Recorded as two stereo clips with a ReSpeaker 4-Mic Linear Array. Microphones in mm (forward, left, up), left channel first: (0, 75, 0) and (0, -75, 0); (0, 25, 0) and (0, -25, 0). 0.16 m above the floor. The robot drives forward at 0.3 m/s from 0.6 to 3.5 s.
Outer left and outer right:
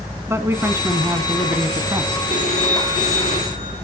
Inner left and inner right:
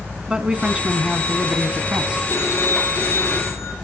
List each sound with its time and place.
0.3 s a man speaking: 15° right (ahead or behind), 1.2 m; by 2.2 s 20° right (ahead or behind), 1.0 m
2.3 s a phone ringing: 60° left (ahead or behind), 2 m